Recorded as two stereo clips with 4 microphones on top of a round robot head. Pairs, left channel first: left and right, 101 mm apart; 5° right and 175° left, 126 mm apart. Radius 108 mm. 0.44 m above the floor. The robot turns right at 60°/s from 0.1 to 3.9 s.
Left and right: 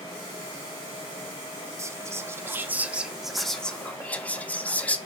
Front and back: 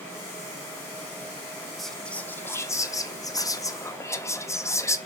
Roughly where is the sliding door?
No sliding door in this recording.